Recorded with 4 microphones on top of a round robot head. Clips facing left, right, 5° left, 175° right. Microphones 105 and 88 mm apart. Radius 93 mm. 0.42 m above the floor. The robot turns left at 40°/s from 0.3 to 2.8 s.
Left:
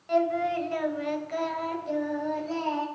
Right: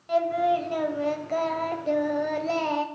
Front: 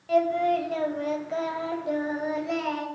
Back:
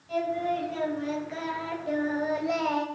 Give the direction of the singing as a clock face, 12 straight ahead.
12 o'clock.